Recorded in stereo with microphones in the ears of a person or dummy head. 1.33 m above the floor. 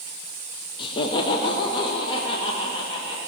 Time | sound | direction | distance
0.8 | laughter | 30° left (ahead or behind) | 0.8 m